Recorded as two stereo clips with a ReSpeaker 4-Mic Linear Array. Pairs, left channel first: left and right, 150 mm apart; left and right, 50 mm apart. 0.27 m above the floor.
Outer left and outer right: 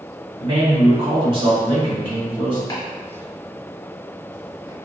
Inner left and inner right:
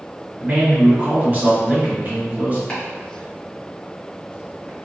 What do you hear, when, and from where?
0.4 s a man speaking: 35° right (ahead or behind), 1.2 m
2.7 s chopping: 25° left (ahead or behind), 1.8 m